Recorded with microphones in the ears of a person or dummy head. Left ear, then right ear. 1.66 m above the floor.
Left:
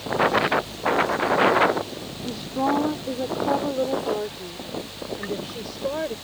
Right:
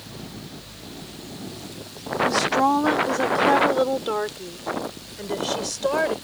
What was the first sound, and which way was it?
A woman speaking, 70° right (ahead or behind).